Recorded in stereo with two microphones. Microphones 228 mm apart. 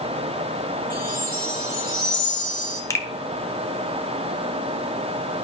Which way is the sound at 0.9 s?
40° right (ahead or behind).